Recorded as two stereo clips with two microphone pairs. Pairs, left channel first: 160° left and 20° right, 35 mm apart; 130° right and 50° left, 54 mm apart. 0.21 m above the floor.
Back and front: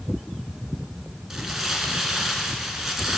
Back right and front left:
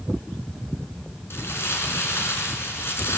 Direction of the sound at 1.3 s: 100° right.